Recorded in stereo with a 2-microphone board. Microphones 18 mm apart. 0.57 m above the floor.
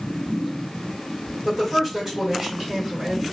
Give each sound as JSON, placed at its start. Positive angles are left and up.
{"t": 1.4, "sound": "a woman speaking", "side_deg": -20, "distance_m": 1.5}